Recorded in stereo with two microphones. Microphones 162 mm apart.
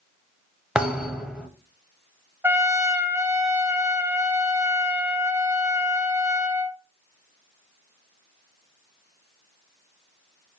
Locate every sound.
0.8 s a thud: 5° right (ahead or behind), 0.6 m
2.4 s a trumpet: 15° right (ahead or behind), 0.7 m